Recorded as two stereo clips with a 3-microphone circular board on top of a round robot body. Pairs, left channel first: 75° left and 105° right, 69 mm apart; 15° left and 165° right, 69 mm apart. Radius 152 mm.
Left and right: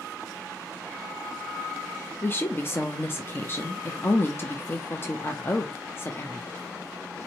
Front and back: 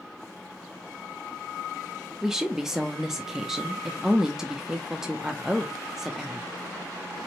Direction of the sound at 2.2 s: 115° left.